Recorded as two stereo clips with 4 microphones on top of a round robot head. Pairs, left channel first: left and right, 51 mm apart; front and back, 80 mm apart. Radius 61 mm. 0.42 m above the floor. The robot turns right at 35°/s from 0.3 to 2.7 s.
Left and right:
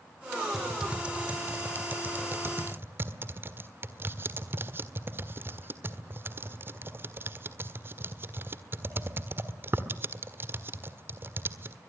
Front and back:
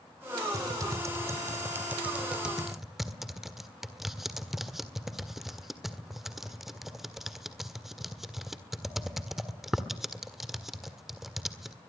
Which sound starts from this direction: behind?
Typing on a keyboard, at 0.5 s.